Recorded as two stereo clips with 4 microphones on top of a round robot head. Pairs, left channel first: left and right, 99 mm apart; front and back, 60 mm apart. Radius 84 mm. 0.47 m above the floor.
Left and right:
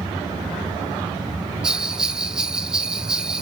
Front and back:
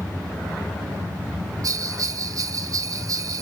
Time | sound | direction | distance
1.6 | a bell | 170° right | 0.7 m